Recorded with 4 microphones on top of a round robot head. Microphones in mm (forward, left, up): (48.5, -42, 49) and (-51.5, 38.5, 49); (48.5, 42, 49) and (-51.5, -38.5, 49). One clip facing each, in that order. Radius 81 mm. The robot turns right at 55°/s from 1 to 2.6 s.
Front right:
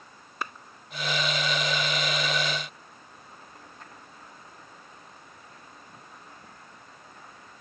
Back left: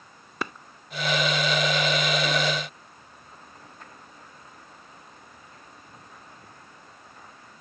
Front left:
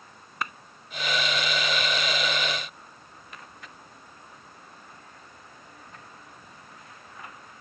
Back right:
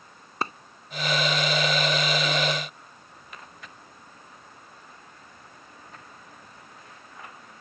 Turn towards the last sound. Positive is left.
turn(degrees=-115)